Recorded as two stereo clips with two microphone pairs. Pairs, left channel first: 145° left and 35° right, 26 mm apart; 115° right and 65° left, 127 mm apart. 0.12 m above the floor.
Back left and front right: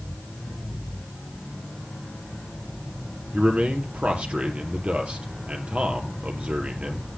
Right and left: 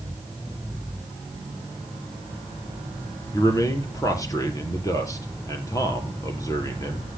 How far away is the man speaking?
About 3 m.